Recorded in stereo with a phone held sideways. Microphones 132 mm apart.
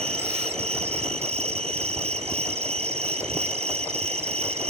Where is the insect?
50° right (ahead or behind), 0.8 m.